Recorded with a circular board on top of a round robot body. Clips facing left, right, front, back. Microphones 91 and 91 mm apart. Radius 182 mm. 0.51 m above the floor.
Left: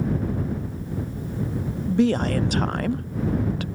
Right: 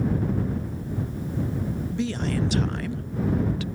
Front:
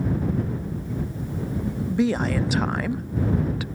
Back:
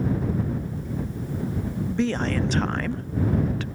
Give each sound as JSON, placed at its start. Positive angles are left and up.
{"t": 1.9, "sound": "a woman speaking", "azimuth_deg": 80}